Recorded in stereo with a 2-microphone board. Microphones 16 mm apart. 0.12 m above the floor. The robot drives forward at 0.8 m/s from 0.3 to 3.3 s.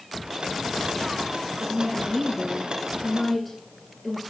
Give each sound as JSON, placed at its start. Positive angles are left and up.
{"t": 1.6, "sound": "a woman speaking", "side_deg": 10, "distance_m": 1.2}